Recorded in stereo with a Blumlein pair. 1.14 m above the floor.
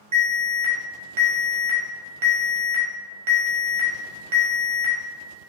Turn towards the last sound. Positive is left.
turn(degrees=-60)